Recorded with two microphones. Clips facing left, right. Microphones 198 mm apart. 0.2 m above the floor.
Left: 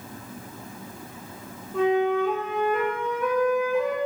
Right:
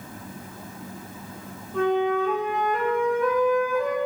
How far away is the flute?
About 8 m.